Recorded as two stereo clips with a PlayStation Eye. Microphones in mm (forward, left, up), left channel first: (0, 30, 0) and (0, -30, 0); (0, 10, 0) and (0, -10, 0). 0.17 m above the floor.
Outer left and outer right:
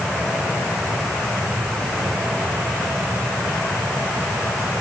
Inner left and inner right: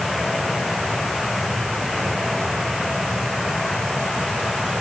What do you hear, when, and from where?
Only background noise.